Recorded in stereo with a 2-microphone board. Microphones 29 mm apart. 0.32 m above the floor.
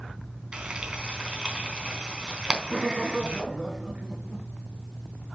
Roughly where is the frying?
Right.